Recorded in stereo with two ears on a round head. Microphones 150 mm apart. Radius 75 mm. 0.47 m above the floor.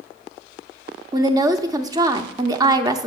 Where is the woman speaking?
20° right (ahead or behind), 0.7 m.